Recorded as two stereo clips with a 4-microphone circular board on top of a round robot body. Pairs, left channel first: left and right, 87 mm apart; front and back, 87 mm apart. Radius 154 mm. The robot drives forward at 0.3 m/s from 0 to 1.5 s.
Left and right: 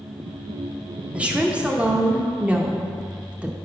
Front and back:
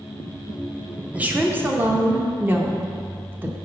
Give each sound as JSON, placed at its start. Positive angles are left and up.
{"t": 1.1, "sound": "a woman speaking", "azimuth_deg": -140, "distance_m": 1.0}